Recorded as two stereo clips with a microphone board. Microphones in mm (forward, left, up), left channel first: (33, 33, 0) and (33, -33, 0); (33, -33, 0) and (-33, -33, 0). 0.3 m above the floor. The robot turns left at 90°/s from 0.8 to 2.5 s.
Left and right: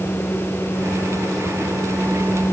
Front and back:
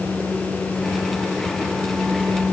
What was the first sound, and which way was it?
Only background noise.